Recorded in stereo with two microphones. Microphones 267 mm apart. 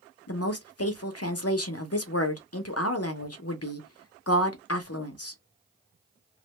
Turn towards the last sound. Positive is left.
turn(degrees=60)  # may be behind; listen again after turning